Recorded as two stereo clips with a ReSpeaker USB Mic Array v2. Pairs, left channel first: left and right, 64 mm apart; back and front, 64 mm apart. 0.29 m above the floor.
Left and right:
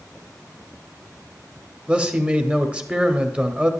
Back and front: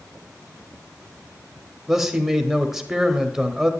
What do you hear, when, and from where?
1.9 s a man speaking: 70° right, 1.1 m